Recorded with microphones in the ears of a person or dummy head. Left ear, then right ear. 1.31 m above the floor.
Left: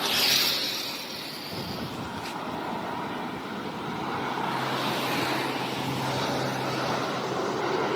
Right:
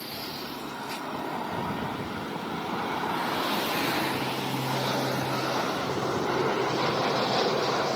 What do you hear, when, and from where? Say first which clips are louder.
1.4 s a rattle: right 3 dB; 5° left (ahead or behind), 0.5 m